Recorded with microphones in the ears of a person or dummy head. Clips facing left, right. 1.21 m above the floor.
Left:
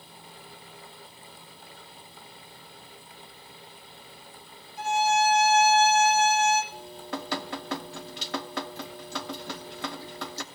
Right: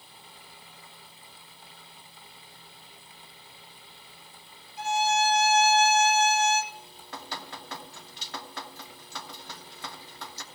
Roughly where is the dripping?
Left.